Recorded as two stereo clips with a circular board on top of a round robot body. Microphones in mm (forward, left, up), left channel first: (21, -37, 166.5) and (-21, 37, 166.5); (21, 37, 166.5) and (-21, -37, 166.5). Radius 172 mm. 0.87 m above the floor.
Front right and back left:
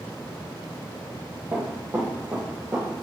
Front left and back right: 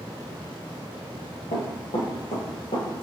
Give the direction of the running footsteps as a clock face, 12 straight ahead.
10 o'clock.